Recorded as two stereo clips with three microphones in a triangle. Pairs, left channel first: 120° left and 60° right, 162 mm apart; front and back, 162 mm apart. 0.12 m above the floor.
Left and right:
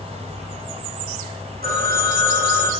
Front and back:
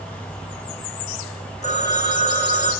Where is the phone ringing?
45° right, 4.5 m.